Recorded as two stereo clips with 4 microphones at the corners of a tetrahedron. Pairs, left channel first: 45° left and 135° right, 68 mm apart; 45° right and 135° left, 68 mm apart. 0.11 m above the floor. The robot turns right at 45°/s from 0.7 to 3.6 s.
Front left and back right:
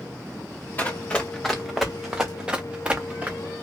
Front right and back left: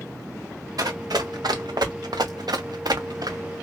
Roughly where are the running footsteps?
Left.